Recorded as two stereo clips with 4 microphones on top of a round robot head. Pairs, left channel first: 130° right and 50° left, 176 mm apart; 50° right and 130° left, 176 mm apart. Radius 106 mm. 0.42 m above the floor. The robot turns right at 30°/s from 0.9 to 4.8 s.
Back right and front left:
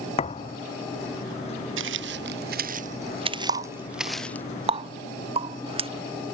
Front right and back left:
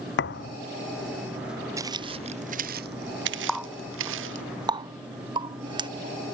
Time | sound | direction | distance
0.2 | a thud | 75° right | ?
1.8 | footsteps | 60° left | ?
3.5 | a running tap | 45° left | ?